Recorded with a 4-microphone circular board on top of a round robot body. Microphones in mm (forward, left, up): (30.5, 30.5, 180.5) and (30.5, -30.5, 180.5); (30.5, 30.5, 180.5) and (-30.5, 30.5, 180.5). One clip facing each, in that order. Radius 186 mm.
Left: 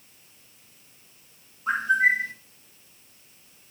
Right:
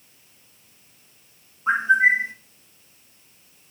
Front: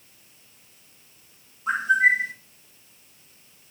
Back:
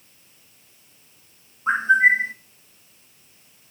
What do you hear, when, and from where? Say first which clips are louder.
1.7 s a bird: right 4 dB, back 3 dB; 145° right, 1.6 m